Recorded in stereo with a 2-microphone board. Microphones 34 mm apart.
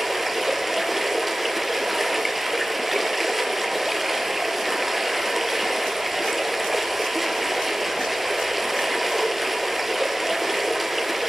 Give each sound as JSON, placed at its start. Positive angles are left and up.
{"t": 0.0, "sound": "running water", "side_deg": -5, "distance_m": 0.8}